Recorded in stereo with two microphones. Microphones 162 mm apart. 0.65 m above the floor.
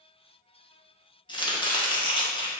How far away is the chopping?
About 0.7 m.